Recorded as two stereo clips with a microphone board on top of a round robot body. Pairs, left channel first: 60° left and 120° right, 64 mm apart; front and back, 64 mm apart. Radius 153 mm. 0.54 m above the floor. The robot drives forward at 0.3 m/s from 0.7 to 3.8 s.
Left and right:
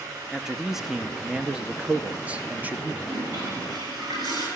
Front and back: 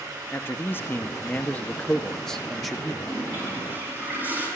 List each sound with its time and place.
0.3 s a man speaking: 40° right, 1.2 m; by 2.9 s 100° right, 1.1 m
3.0 s a toilet flushing: 120° right, 9.5 m